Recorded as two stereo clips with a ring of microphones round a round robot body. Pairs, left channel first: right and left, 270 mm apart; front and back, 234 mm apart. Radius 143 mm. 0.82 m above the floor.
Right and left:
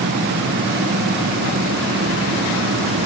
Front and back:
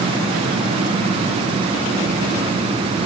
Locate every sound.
Only background noise.